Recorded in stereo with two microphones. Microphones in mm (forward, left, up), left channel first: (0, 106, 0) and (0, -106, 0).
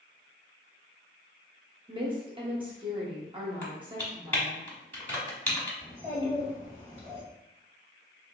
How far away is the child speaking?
About 2.0 m.